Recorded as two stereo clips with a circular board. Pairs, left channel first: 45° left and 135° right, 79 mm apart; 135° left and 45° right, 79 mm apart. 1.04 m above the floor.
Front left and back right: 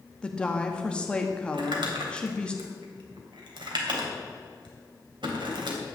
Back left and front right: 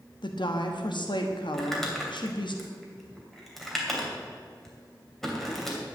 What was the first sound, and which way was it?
A woman speaking, 120° left.